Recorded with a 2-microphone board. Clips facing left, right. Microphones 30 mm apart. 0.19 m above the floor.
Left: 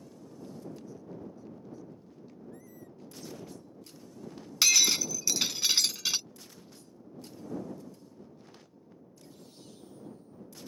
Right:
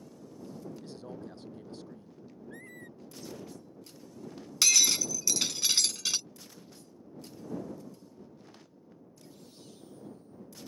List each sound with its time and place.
0.8 s a man speaking: 80° right
2.5 s a squeak: 60° right (ahead or behind)
4.6 s breaking glass: 10° left (ahead or behind)